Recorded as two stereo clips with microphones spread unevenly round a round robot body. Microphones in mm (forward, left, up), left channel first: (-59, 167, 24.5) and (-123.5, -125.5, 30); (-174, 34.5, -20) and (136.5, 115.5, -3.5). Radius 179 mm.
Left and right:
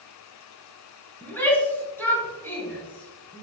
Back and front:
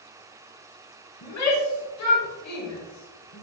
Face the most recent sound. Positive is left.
turn(degrees=160)